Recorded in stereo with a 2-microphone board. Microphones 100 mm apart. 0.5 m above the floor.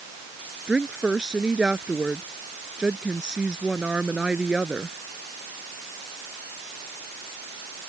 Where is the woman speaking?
10° right (ahead or behind).